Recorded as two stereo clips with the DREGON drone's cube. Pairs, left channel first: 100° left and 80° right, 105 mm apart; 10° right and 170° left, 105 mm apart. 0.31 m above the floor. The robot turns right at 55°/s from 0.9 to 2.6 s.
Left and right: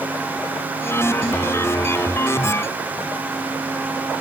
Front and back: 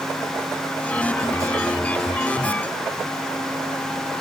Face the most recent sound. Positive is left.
No sound to turn to.